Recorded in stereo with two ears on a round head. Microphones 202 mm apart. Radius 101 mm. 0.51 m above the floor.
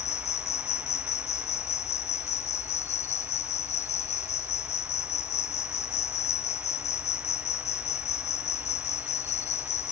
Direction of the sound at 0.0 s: 30° left (ahead or behind).